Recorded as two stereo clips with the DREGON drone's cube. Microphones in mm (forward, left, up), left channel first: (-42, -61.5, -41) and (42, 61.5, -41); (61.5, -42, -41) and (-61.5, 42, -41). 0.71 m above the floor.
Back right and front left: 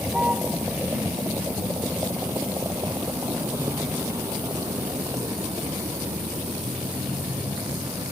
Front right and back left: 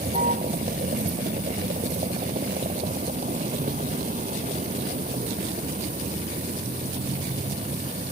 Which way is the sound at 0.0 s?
135° left.